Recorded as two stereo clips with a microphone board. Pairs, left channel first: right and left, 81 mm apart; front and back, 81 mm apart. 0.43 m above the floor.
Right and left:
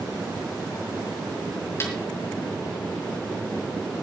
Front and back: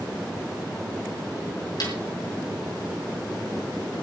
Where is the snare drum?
30° right, 4.5 m.